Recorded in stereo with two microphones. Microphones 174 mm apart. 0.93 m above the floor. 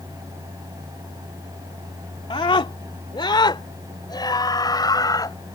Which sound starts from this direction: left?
A scream, at 2.3 s.